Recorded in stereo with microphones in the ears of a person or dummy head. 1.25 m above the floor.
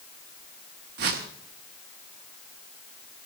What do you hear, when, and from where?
1.0 s a whoosh: 50° right (ahead or behind), 1.1 m